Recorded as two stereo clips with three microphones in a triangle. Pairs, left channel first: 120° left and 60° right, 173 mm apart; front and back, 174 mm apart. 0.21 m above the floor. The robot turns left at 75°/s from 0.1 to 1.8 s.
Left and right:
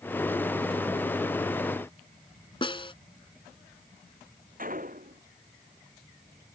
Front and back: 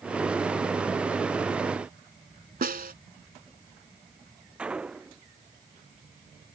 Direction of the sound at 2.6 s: 175° left.